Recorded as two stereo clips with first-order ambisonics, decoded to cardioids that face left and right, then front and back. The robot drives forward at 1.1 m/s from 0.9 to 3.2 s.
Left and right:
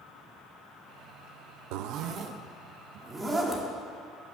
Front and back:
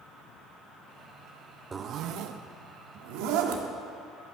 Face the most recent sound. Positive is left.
turn(degrees=-165)